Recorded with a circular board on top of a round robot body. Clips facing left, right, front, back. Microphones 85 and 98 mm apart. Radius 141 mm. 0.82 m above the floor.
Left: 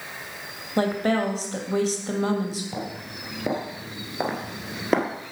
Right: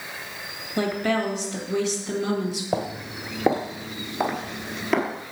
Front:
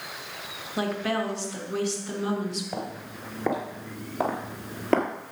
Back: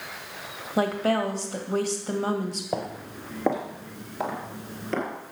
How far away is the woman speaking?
About 2.0 m.